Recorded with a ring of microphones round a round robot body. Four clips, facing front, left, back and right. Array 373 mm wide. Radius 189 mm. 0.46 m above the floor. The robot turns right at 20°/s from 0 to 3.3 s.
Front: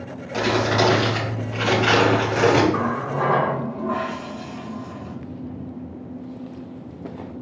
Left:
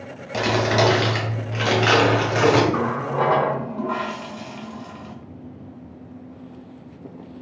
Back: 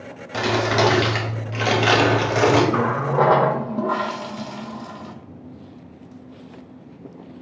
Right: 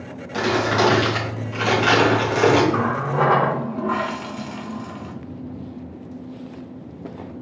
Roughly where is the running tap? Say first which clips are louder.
Right 1 dB, back 3 dB; behind.